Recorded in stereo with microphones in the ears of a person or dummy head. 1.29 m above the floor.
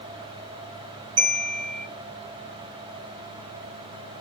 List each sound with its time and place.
1.2 s a bell: 30° right (ahead or behind), 1.5 m